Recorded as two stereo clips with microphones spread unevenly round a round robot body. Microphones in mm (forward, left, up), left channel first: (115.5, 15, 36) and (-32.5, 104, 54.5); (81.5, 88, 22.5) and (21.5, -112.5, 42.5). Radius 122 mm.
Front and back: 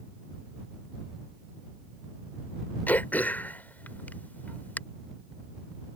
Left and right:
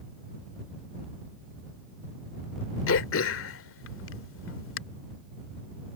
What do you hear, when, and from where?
2.9 s throat clearing: 50° left